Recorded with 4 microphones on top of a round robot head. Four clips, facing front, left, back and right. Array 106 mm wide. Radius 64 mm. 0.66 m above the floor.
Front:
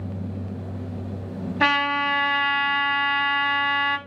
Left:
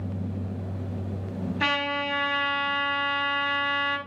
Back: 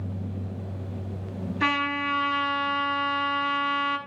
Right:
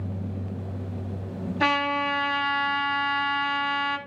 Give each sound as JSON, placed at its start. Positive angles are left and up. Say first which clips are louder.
{"t": 1.6, "sound": "a trumpet", "louder": "right 4 dB, front 5 dB", "azimuth_deg": -15, "distance_m": 4.0}